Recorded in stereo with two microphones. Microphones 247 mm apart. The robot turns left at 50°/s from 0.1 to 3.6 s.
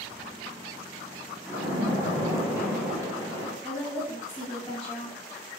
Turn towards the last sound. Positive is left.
turn(degrees=5)  # may be behind; listen again after turning